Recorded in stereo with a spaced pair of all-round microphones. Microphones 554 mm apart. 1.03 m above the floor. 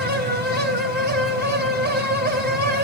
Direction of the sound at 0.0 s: 20° right (ahead or behind).